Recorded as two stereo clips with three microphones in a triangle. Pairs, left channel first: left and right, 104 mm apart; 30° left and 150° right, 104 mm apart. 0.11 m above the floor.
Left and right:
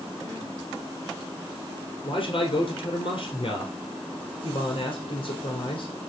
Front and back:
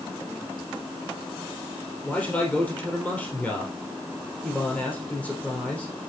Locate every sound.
2.0 s a man speaking: 105° left, 2.5 m